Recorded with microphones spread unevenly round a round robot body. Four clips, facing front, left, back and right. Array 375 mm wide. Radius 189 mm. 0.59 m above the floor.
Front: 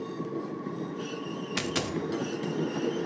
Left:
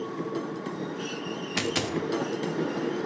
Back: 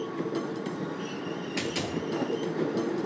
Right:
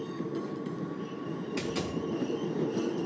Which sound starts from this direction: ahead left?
A dropped coin, at 1.6 s.